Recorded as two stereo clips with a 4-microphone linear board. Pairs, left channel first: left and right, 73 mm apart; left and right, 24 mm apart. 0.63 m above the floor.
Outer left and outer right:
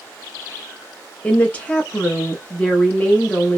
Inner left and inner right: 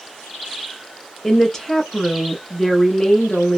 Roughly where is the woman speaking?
Centre.